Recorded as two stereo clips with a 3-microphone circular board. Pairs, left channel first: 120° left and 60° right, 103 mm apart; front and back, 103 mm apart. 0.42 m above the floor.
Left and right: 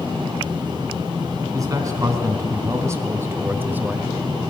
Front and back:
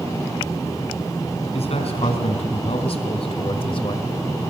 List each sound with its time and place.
1.5 s a man speaking: 5° right, 3.5 m; by 4.1 s 15° left, 1.2 m